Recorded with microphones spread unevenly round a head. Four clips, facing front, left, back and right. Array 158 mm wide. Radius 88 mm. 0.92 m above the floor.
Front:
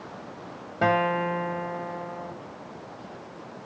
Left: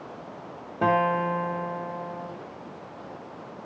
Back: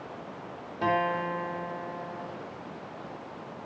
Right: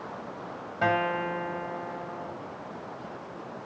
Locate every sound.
0.8 s a guitar: 55° left, 4.5 m